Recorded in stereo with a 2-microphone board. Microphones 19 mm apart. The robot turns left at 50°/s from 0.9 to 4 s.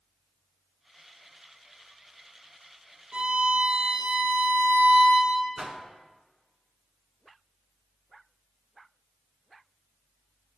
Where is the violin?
55° right, 3 m; by 5.5 s 100° right, 3 m.